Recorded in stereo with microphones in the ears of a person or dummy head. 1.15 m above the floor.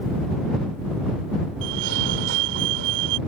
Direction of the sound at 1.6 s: 70° right (ahead or behind).